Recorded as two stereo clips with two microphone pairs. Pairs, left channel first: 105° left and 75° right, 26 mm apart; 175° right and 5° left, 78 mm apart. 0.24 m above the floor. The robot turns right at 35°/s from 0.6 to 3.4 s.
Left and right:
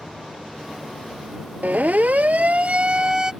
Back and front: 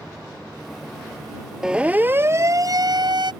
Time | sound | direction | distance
1.6 | a siren | 80° right | ?